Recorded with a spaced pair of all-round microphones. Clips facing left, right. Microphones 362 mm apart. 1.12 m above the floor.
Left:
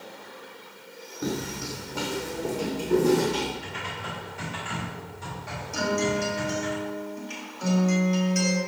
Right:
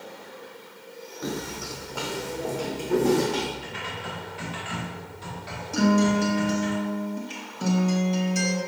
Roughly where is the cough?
I don't hear a cough.